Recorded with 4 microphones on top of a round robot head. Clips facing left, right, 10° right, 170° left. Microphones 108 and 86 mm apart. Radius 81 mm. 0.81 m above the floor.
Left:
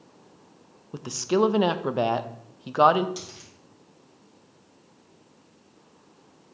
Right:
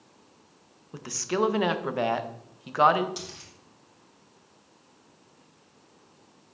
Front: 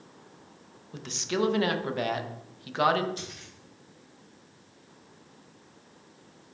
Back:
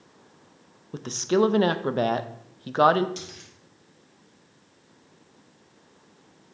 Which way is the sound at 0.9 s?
145° left.